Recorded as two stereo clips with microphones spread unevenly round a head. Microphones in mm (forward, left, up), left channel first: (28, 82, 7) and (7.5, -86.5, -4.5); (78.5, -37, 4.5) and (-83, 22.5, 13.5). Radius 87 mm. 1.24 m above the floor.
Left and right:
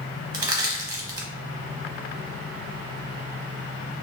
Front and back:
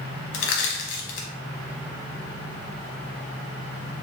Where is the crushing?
30° right, 0.9 m.